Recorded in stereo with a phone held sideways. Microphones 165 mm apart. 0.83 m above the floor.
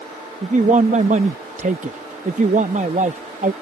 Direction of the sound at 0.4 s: 45° right (ahead or behind).